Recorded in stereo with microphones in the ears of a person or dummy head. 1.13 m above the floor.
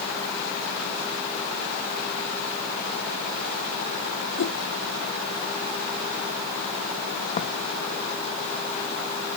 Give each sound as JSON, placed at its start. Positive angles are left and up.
{"t": 4.4, "sound": "a whoosh", "side_deg": 80}
{"t": 7.4, "sound": "footsteps", "side_deg": 30}